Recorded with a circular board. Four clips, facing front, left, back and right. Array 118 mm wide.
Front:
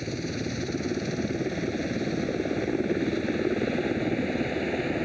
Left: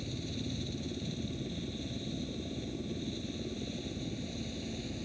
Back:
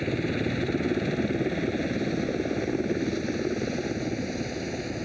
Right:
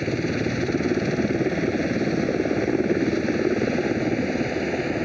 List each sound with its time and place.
0.0 s a helicopter: 105° right; by 5.1 s 70° right